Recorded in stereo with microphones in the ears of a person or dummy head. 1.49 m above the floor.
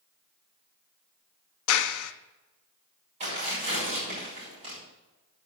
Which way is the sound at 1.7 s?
80° left.